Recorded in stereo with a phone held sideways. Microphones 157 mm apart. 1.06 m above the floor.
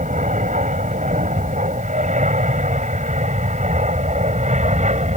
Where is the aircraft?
50° right (ahead or behind); by 5.2 s 45° right (ahead or behind).